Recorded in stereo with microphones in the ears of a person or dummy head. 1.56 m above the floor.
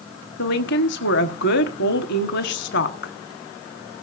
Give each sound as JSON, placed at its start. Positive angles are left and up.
{"t": 0.4, "sound": "a woman speaking", "side_deg": 55, "distance_m": 1.1}